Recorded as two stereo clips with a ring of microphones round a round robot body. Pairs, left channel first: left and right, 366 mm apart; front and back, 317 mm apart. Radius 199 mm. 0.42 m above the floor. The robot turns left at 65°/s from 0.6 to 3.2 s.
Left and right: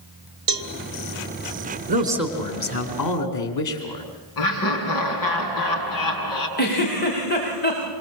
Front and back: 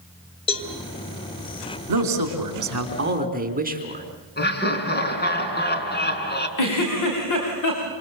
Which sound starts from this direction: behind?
A man speaking, at 1.9 s.